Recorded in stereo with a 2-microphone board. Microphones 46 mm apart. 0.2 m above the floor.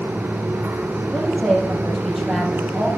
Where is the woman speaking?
5° left (ahead or behind), 4.5 m.